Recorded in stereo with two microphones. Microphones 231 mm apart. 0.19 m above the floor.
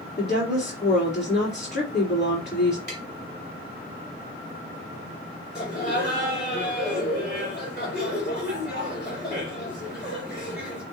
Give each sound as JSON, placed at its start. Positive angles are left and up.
{"t": 0.2, "sound": "a woman speaking", "side_deg": 50, "distance_m": 2.5}
{"t": 2.9, "sound": "tapping", "side_deg": 45, "distance_m": 1.6}
{"t": 5.5, "sound": "laughter", "side_deg": 45, "distance_m": 3.0}